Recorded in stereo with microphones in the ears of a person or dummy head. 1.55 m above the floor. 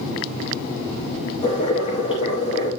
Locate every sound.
1.4 s boiling: 35° left (ahead or behind), 6.5 m